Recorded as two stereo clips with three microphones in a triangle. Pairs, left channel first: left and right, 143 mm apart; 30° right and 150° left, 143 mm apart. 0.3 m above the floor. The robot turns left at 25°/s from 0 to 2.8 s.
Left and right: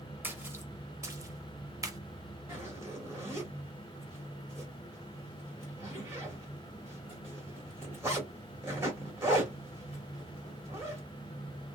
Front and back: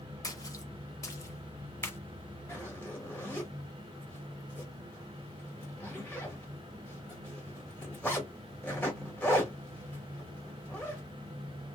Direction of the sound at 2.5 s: 75° right.